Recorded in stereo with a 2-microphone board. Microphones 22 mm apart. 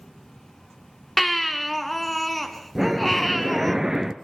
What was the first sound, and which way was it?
A baby crying, 5° left (ahead or behind).